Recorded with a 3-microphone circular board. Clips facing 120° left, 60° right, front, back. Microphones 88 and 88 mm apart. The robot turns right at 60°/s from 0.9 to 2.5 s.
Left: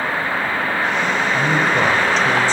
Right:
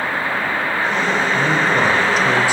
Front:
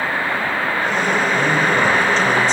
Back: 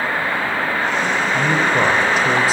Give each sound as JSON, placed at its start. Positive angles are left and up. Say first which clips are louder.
{"t": 1.3, "sound": "a man speaking", "louder": "even, back 2 dB", "azimuth_deg": 180, "distance_m": 0.9}